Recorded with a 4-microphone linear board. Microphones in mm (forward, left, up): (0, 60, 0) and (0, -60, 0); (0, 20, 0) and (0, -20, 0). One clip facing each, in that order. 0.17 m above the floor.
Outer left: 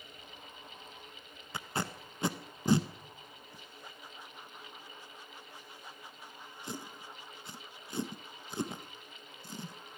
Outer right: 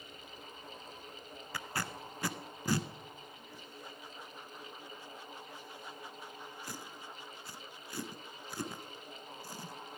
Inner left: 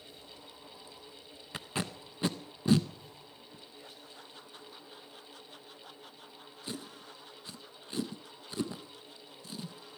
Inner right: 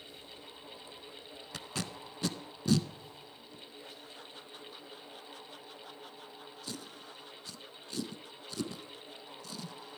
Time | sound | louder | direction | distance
1.5 | tape being pulled | outer left 3 dB, inner left 3 dB | 20° left (ahead or behind) | 0.5 m